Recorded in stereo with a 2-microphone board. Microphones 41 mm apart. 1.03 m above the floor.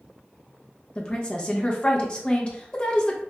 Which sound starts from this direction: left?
A woman speaking, at 0.9 s.